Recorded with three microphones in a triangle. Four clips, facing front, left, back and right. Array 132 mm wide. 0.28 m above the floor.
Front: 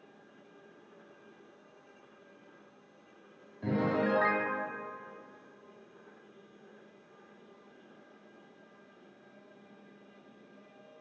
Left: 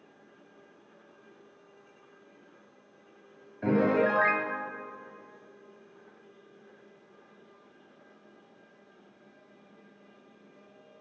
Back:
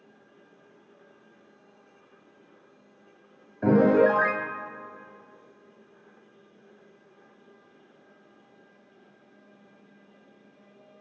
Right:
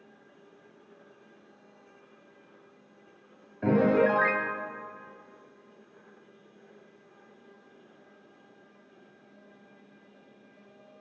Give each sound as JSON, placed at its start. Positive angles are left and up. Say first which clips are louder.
{"t": 3.6, "sound": "a piano", "louder": "right 2 dB, back 11 dB", "azimuth_deg": 180, "distance_m": 2.5}